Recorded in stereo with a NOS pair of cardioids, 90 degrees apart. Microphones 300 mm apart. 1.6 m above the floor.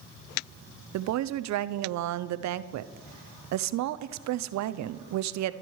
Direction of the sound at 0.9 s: 65° right.